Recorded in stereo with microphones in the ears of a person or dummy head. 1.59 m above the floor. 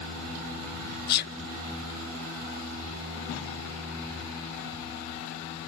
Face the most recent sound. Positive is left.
turn(degrees=55)  # may be behind; listen again after turning